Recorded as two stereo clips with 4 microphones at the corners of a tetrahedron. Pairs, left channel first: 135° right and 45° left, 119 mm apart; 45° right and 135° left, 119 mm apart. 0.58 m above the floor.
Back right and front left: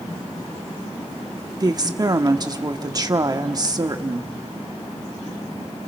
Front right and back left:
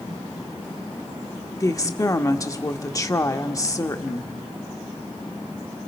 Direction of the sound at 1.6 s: 5° left.